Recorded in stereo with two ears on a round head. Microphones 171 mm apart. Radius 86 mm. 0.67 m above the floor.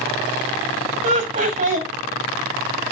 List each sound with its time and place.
1.0 s laughter: 40° right (ahead or behind), 1.2 m